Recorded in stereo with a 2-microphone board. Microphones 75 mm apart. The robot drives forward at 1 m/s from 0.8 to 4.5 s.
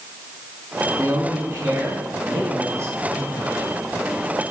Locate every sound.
1.0 s a man speaking: 50° right (ahead or behind), 5.5 m; by 3.6 s 30° right (ahead or behind), 7.5 m